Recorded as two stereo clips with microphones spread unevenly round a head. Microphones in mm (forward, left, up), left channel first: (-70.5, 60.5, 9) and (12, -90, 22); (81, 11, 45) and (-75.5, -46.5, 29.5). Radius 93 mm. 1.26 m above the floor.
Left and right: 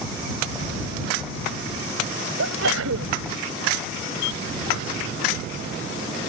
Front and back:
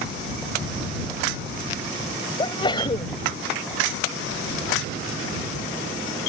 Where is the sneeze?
45° right.